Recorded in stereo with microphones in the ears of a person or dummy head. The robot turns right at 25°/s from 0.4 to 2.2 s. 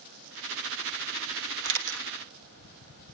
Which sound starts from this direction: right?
A camera shutter, at 1.6 s.